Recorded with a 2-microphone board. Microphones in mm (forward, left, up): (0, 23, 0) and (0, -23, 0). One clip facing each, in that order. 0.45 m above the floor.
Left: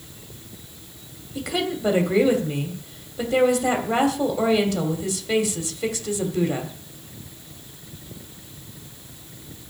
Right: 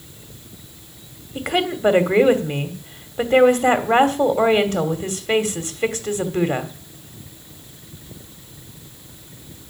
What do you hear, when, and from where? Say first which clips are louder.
1.4 s a woman speaking: right 4 dB; 40° right (ahead or behind), 2 m